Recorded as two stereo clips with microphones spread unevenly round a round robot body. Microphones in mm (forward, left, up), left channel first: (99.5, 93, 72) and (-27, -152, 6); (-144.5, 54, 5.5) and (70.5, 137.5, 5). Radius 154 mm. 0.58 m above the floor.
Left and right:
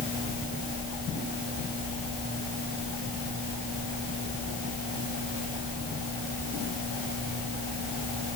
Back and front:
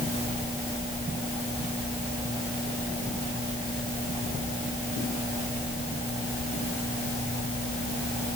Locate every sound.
Only background noise.